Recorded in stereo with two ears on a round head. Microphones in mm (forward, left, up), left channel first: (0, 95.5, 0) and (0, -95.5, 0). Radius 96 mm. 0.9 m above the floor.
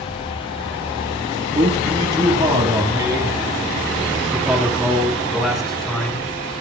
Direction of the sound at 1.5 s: 35° right (ahead or behind).